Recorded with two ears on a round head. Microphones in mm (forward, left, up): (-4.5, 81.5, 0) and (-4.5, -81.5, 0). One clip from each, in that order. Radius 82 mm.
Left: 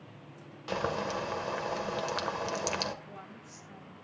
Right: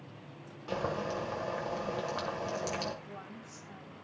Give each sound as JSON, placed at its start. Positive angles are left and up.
{"t": 0.7, "sound": "boiling", "side_deg": 45, "distance_m": 1.5}
{"t": 3.0, "sound": "a woman speaking", "side_deg": 5, "distance_m": 2.5}